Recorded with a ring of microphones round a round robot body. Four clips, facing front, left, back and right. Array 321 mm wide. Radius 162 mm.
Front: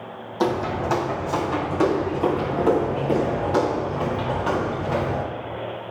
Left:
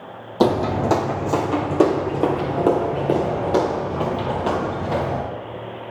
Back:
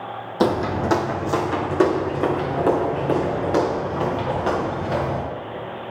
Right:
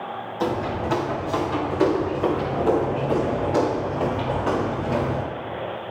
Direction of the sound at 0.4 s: 115° left.